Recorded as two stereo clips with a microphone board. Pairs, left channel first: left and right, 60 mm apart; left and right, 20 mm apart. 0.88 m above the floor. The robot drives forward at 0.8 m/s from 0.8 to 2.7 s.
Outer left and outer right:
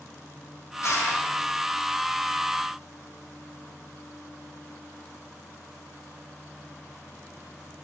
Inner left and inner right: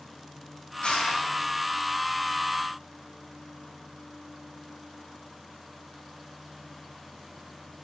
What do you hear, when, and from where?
0.8 s crushing: 55° left (ahead or behind), 7 m; by 1.2 s 60° left (ahead or behind), 7 m